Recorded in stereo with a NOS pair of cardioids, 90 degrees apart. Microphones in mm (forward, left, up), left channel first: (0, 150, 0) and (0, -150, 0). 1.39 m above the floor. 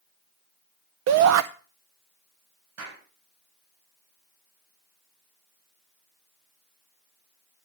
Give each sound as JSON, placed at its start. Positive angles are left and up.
{"t": 1.1, "sound": "a shout", "azimuth_deg": -65, "distance_m": 0.6}
{"t": 2.8, "sound": "a clap", "azimuth_deg": -60, "distance_m": 7.0}